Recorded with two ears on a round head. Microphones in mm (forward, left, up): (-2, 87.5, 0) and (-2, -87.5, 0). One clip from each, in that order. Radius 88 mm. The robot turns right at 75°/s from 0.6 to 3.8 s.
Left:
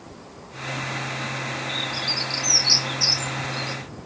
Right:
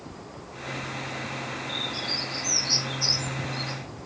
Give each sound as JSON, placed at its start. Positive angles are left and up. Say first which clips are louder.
{"t": 1.7, "sound": "a bird", "louder": "left 3 dB", "side_deg": 10, "distance_m": 1.2}